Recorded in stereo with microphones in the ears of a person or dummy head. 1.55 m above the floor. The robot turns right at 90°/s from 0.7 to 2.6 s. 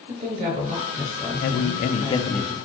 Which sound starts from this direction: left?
A man speaking, at 1.4 s.